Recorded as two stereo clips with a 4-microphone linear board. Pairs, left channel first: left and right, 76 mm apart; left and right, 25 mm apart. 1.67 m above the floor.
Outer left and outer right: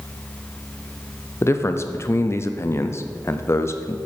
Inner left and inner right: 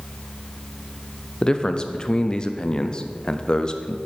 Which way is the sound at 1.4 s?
30° left (ahead or behind).